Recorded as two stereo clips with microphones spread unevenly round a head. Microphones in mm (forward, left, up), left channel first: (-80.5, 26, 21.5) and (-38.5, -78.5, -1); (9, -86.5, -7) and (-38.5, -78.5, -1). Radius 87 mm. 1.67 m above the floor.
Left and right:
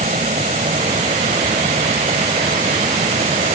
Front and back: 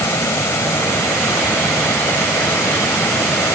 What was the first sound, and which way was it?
A fan, 15° right.